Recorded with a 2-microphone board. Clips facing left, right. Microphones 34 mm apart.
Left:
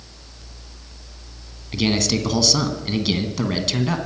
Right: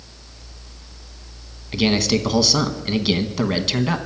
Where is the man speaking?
10° right (ahead or behind), 1.1 m.